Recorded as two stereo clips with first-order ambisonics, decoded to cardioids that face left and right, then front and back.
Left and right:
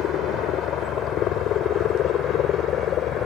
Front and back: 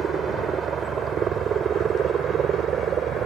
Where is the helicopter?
120° left; by 3.3 s 130° left.